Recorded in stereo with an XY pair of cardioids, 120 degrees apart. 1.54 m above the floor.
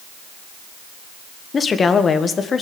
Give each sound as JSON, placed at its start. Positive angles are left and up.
{"t": 1.5, "sound": "a woman speaking", "azimuth_deg": 35, "distance_m": 1.5}